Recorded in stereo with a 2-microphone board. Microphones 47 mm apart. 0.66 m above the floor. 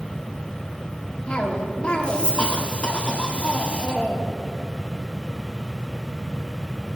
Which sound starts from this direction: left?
A cough, at 1.3 s.